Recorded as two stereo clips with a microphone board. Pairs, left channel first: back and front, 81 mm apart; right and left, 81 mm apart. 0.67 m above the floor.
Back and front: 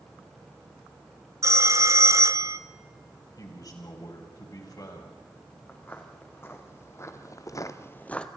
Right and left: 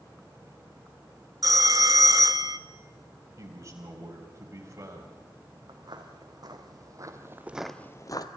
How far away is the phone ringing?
About 1.0 m.